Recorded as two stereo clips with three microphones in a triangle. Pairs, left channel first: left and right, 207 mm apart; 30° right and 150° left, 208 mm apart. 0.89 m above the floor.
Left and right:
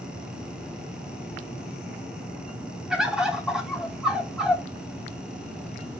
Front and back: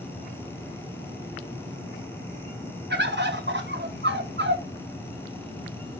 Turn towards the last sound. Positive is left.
turn(degrees=-175)